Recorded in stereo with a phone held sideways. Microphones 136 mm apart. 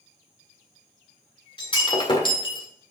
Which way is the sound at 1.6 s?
35° left (ahead or behind).